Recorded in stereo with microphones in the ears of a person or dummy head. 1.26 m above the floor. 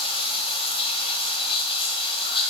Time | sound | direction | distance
0.0 | running water | 35° left (ahead or behind) | 1.0 m